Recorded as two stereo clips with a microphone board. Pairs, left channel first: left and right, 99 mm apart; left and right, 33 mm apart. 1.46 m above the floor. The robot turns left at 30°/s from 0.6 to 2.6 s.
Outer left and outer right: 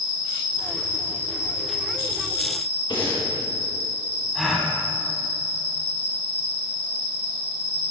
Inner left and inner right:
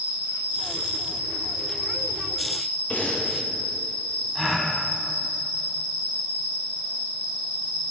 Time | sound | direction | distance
0.0 | an insect | 140° right | 3.5 m
2.9 | breathing | 50° left (ahead or behind) | 4 m
4.3 | a gasp | centre (ahead or behind) | 1.7 m